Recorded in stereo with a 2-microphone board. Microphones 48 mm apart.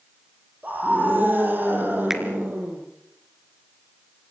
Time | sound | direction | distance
0.6 | a scream | 35° right (ahead or behind) | 7.5 m
2.1 | a finger snap | 5° right (ahead or behind) | 3 m